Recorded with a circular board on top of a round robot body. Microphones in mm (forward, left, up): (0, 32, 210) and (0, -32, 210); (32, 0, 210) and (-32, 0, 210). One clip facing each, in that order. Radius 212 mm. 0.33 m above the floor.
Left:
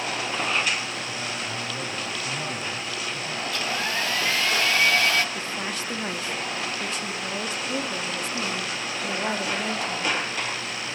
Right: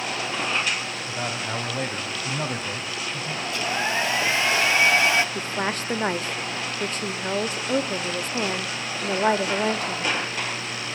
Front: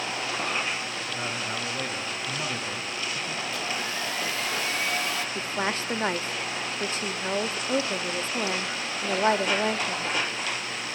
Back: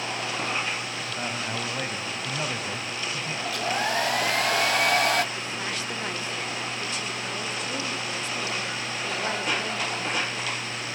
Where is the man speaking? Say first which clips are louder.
Right 2 dB, back 1 dB; 110° right, 3.5 m; by 3.4 s 135° right, 3 m.